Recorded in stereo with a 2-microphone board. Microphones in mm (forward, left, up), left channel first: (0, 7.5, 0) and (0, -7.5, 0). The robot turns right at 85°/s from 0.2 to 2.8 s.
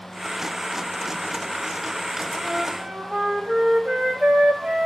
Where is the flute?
120° right, 2.5 m; by 4.9 s 85° right, 2.5 m.